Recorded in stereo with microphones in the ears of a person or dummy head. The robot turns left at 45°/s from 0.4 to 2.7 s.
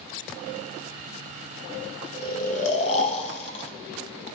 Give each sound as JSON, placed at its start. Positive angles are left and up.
{"t": 2.1, "sound": "snoring", "side_deg": 60, "distance_m": 1.4}